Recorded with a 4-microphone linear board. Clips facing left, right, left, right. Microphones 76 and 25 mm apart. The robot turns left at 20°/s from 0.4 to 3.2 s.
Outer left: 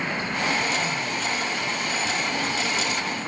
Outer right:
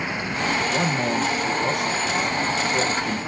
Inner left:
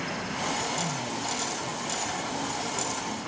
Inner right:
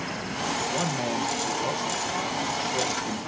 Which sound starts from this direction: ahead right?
A man speaking, at 0.7 s.